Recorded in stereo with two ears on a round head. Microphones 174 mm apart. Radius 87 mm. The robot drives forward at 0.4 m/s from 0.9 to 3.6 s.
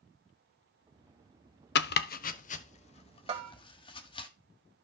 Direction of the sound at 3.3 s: 30° right (ahead or behind).